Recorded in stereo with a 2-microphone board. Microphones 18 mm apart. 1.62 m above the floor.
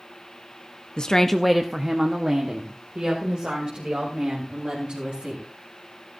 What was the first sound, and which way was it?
A woman speaking, 50° left (ahead or behind).